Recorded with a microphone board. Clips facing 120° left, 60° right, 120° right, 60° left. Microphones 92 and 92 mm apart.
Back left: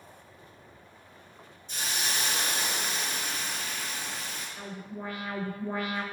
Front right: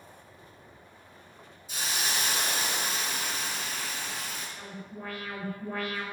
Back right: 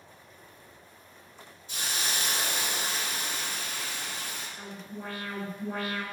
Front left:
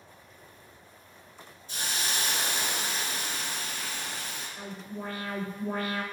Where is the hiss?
25° left, 1.8 m.